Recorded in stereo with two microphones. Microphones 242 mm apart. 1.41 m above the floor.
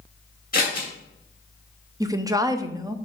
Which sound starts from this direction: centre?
A woman speaking, at 2.0 s.